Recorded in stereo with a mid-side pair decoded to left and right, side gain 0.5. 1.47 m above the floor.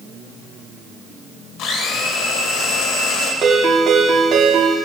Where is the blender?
65° left, 2.5 m.